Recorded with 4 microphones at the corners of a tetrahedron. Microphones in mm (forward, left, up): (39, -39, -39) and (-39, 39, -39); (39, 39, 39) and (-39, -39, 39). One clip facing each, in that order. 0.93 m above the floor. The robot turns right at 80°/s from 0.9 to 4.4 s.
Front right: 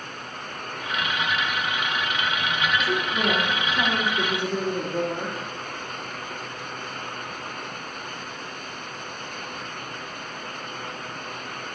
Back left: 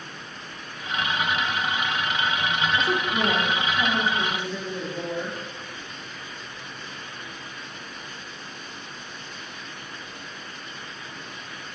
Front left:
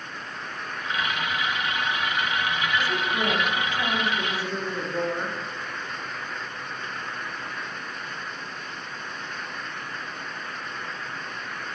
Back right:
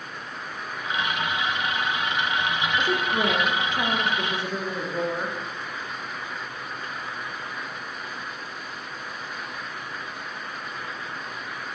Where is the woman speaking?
170° right, 1.7 m; by 5.4 s 40° right, 1.7 m.